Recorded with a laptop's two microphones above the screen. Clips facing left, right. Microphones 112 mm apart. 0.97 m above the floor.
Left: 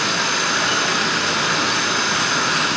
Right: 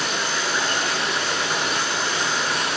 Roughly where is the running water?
Left.